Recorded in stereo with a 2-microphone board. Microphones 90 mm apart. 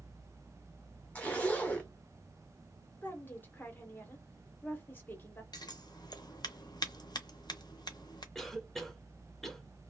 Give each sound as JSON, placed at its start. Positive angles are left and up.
{"t": 1.1, "sound": "a zipper", "side_deg": 15, "distance_m": 0.9}
{"t": 3.0, "sound": "a woman speaking", "side_deg": 25, "distance_m": 0.8}
{"t": 5.5, "sound": "scissors", "side_deg": 55, "distance_m": 0.6}
{"t": 8.3, "sound": "a cough", "side_deg": 5, "distance_m": 0.7}